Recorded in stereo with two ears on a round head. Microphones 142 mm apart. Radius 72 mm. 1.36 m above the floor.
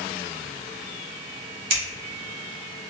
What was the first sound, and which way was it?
Scissors, 35° right (ahead or behind).